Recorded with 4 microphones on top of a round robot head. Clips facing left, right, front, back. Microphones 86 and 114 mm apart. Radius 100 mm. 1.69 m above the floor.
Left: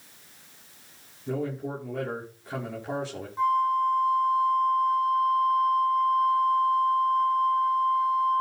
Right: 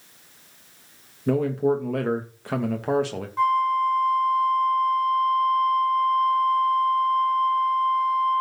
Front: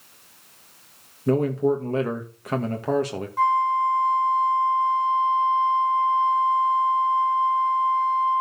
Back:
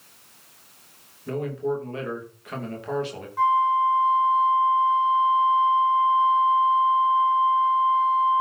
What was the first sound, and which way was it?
A man speaking, 60° right.